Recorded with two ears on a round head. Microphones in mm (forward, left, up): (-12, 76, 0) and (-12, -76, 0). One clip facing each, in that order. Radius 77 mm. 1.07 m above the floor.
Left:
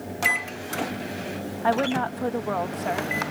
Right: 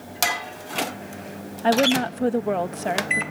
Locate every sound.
1.6 s a woman speaking: 30° right (ahead or behind)